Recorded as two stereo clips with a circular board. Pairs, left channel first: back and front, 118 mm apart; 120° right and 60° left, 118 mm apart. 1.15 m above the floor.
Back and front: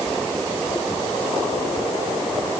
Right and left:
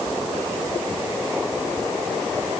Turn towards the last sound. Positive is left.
No sound to turn to.